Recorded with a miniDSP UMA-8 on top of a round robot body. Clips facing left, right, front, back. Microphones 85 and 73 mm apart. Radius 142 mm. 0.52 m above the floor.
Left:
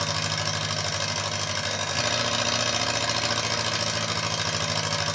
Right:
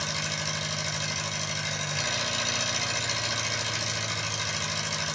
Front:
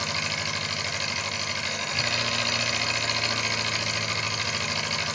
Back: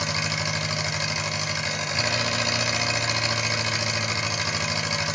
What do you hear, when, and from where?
0.0 s an engine running: 115° left, 0.8 m